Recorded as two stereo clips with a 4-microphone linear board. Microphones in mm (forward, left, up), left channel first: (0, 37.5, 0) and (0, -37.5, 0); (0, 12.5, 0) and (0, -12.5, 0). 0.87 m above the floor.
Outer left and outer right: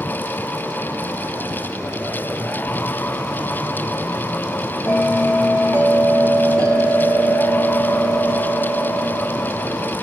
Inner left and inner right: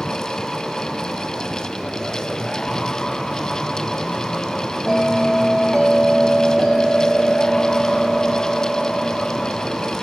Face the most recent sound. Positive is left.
turn(degrees=25)  # may be behind; listen again after turning